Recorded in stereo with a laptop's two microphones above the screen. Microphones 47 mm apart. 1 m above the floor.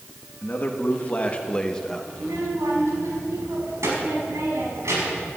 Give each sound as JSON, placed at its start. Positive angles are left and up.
{"t": 0.4, "sound": "a man speaking", "side_deg": 45, "distance_m": 1.6}
{"t": 2.1, "sound": "a child speaking", "side_deg": -90, "distance_m": 5.0}